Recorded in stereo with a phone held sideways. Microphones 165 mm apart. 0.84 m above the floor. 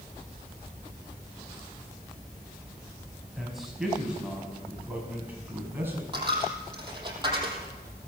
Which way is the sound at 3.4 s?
Centre (ahead or behind).